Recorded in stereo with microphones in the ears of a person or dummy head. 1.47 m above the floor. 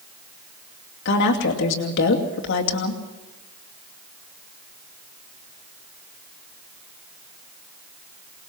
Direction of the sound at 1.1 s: 65° left (ahead or behind).